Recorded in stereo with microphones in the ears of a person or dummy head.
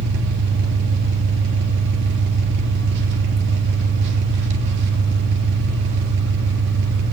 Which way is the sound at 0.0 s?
60° right (ahead or behind).